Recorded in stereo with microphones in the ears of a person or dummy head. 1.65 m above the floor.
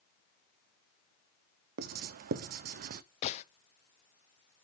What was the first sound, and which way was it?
Writing, 50° right (ahead or behind).